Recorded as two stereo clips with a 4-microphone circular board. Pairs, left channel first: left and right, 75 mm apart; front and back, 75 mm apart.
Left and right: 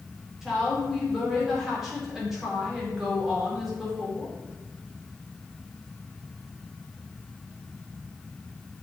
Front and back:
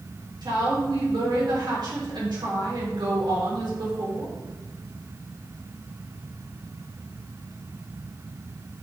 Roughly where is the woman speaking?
Behind.